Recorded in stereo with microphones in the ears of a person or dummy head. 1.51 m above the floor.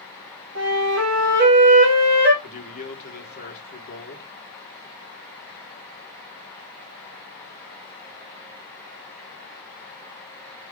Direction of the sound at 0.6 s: 70° right (ahead or behind).